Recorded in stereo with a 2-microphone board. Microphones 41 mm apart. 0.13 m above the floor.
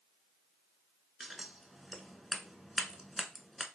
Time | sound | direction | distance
1.2 | scissors | centre (ahead or behind) | 0.7 m